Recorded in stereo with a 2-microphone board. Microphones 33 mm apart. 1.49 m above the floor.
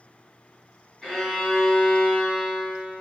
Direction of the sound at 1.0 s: 15° left (ahead or behind).